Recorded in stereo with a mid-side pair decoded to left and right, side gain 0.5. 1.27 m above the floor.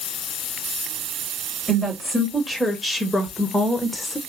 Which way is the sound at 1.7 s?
5° left.